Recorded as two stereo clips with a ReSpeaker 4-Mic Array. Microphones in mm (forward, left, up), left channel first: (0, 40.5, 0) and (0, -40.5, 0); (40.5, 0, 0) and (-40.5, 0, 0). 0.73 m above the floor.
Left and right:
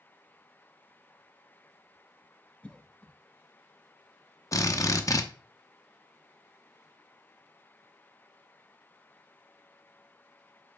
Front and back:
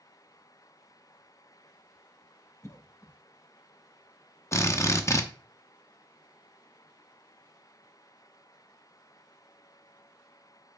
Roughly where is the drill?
Ahead left.